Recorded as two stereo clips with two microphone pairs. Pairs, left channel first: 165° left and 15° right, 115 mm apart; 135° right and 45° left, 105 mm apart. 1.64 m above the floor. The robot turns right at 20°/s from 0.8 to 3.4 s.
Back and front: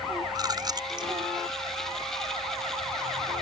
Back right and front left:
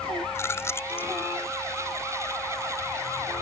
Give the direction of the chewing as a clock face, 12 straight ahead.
2 o'clock.